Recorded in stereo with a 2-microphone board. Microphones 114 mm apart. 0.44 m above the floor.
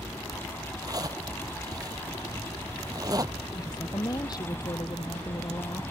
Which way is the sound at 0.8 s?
30° right (ahead or behind).